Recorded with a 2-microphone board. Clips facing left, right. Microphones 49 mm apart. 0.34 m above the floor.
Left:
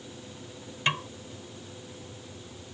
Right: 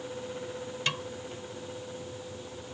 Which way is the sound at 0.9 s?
30° left (ahead or behind).